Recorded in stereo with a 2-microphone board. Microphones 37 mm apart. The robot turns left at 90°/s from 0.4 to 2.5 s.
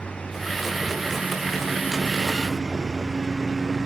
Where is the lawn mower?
35° left (ahead or behind); by 3.9 s 15° right (ahead or behind).